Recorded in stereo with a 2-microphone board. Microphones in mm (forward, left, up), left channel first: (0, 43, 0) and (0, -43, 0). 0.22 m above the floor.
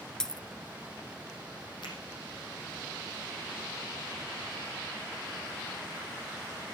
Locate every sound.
0.2 s a dropped coin: 10° left (ahead or behind), 0.6 m
1.8 s a finger snap: 65° left (ahead or behind), 6.5 m